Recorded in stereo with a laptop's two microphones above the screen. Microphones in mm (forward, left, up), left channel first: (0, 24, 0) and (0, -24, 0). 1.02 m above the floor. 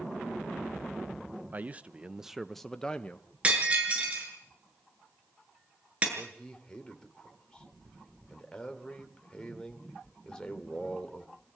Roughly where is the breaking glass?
Right.